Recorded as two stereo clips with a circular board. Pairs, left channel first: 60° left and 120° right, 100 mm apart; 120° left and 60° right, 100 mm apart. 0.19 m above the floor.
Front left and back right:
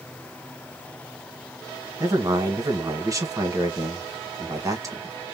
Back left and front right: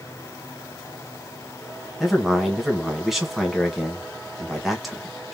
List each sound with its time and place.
2.0 s a man speaking: 150° right, 1.5 m